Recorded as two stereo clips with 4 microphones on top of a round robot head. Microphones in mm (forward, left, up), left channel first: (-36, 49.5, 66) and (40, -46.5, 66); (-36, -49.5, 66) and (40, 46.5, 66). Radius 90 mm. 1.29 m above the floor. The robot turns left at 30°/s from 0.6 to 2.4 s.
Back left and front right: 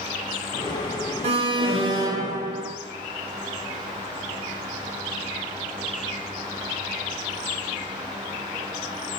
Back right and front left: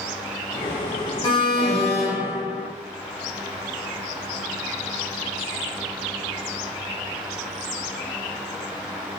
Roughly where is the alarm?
Right.